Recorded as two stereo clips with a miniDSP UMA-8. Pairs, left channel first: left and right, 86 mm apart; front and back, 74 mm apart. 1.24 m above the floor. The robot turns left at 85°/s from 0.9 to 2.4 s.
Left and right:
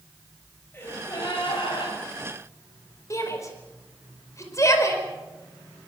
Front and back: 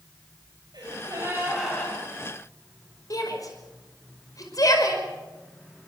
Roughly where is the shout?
Ahead left.